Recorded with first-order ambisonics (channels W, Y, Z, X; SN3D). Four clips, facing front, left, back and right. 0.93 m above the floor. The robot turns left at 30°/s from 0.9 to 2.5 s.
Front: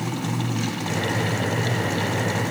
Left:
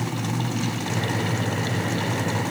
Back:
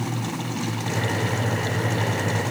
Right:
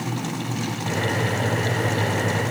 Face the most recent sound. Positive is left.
No sound to turn to.